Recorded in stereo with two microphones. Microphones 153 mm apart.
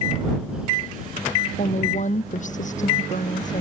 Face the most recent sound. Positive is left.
turn(degrees=55)  # may be behind; listen again after turning